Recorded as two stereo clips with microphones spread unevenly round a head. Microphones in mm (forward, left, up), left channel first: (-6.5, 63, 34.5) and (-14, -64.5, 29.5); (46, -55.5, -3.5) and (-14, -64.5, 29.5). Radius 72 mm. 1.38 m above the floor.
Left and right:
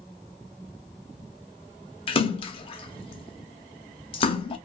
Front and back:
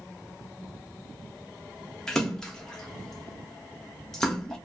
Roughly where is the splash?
Ahead left.